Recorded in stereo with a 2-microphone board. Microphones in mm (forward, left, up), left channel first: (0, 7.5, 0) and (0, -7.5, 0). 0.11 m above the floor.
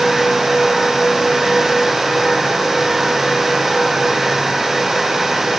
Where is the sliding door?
No sliding door in this recording.